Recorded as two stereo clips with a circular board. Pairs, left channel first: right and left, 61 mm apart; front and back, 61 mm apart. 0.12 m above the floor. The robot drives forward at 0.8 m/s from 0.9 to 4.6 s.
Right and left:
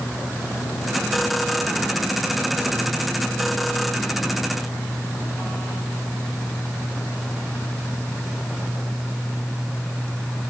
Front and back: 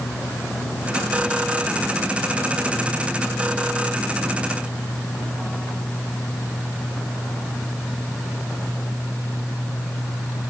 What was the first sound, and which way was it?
Only background noise.